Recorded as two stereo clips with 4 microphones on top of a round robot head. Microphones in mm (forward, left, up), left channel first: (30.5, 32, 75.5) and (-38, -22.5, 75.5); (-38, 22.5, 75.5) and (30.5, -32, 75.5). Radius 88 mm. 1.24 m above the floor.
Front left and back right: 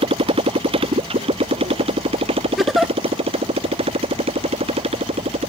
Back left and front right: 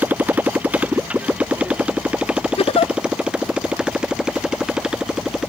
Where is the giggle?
130° left.